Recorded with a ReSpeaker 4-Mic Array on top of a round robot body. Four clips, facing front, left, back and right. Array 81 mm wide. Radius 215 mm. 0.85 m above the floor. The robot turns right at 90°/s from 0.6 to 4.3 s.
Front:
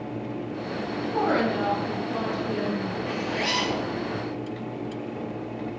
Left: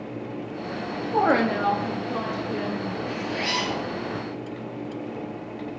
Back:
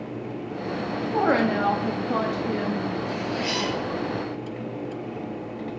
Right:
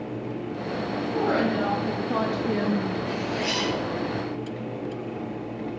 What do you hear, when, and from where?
1.1 s a woman speaking: 115° left, 1.7 m; by 3.0 s 80° right, 1.7 m
3.1 s a zipper: 5° right, 5 m; by 3.9 s 65° left, 5 m